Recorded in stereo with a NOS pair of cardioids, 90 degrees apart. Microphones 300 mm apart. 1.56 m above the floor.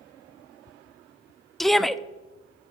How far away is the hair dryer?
No hair dryer in this recording.